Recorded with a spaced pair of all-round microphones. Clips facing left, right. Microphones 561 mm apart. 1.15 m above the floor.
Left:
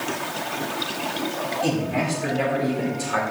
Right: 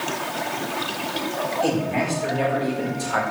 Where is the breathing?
I don't hear breathing.